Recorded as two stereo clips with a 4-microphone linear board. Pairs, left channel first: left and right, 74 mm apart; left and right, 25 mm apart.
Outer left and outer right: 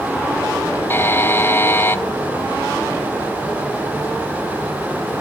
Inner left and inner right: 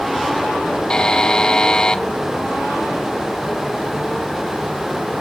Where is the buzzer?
30° left (ahead or behind), 0.7 m.